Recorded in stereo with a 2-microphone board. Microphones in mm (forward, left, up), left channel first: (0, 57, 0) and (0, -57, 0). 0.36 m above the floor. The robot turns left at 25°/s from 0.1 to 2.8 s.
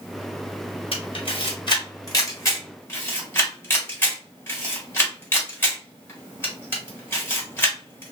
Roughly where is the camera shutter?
Left.